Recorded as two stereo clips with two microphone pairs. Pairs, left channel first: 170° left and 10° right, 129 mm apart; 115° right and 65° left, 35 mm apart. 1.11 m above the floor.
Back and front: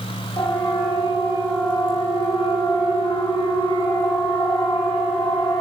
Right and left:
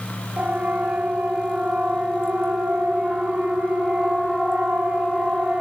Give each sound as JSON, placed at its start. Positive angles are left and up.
{"t": 0.4, "sound": "a siren", "azimuth_deg": 110, "distance_m": 7.0}